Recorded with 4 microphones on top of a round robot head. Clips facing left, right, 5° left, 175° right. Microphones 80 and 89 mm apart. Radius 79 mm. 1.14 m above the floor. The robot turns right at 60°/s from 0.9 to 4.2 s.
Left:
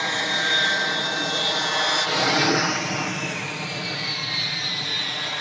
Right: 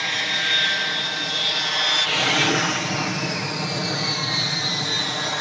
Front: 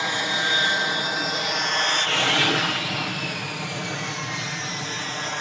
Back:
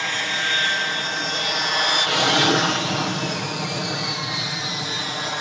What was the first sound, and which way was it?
An aircraft, 65° left.